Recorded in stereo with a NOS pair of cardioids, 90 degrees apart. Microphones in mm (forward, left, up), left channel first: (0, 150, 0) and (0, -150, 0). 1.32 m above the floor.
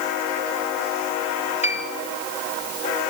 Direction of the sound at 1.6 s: 25° left.